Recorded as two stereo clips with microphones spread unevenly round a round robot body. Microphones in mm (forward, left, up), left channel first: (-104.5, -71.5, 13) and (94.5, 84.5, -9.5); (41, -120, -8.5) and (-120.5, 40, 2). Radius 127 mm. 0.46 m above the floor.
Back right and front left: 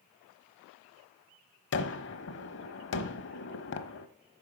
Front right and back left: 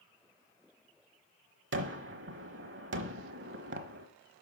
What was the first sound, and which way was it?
A gunshot, 170° left.